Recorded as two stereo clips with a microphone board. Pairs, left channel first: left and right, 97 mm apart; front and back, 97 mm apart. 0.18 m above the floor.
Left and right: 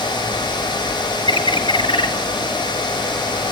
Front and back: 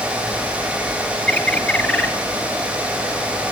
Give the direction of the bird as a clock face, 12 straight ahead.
9 o'clock.